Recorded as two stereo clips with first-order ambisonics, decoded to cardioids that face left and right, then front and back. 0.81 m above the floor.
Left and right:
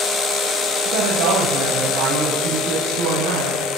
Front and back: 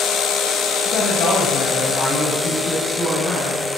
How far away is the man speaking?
About 3.5 m.